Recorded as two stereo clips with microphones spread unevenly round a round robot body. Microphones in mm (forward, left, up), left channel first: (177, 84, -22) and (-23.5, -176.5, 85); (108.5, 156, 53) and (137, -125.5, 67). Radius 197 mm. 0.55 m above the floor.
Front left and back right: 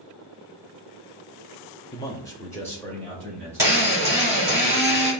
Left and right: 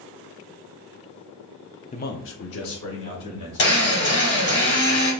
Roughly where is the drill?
Behind left.